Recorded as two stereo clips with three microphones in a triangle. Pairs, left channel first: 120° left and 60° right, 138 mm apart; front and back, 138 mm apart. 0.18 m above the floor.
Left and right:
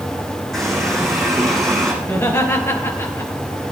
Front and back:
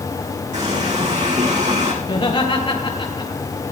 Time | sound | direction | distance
0.5 | a running tap | 150° right | 8 m
2.0 | laughter | 50° left | 3.5 m